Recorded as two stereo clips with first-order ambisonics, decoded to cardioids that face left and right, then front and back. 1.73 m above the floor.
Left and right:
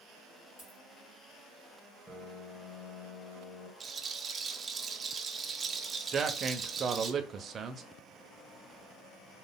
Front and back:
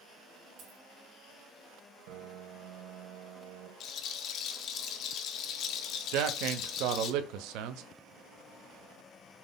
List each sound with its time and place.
0.6 s a dropped coin: 150° left, 2.5 m
2.1 s a piano: straight behind, 1.4 m
3.8 s a rattle: 25° right, 0.6 m
6.1 s a man speaking: 155° right, 0.7 m